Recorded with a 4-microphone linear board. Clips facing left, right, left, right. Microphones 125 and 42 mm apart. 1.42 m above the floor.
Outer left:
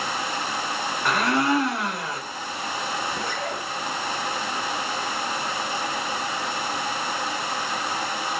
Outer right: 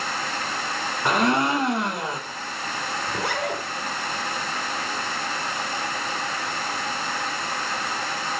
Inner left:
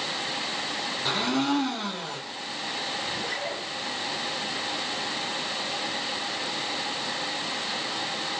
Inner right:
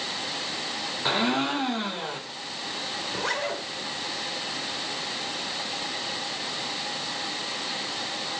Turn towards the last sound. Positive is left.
turn(degrees=-75)  # may be behind; listen again after turning